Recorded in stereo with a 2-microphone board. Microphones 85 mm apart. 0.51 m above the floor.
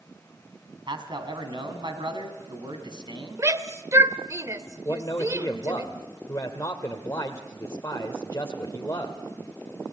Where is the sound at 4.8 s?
40° left (ahead or behind), 1.5 m.